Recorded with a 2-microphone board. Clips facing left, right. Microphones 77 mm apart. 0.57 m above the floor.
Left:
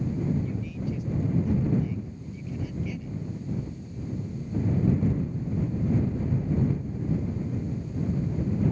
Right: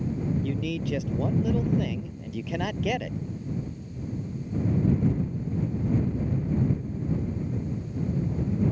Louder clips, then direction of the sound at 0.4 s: Right 3 dB; 70° right (ahead or behind).